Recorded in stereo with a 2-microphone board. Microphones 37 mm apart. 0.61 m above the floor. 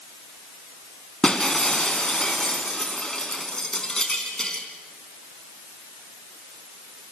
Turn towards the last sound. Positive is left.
turn(degrees=20)  # may be behind; listen again after turning